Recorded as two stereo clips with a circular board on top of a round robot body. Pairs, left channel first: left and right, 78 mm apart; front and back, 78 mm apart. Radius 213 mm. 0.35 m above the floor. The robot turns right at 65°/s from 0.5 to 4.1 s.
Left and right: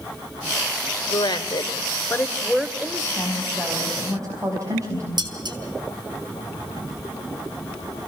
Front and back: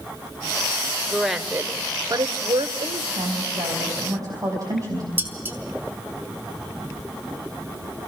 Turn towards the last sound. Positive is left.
turn(degrees=-115)